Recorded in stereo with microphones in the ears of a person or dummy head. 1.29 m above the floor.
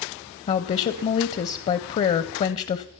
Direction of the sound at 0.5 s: 35° left (ahead or behind).